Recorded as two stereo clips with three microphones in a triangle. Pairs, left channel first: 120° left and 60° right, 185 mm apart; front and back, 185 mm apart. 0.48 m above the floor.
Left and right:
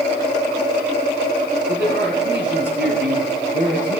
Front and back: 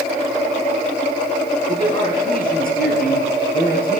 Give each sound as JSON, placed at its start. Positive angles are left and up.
{"t": 1.7, "sound": "a man speaking", "azimuth_deg": -35, "distance_m": 3.5}